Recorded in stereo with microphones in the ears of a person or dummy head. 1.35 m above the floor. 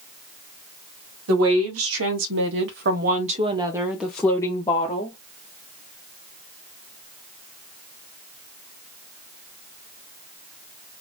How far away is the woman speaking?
About 1.8 m.